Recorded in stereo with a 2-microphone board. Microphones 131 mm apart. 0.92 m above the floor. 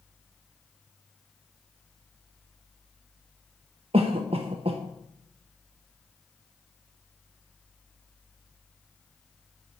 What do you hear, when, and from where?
3.9 s a cough: 50° right (ahead or behind), 0.6 m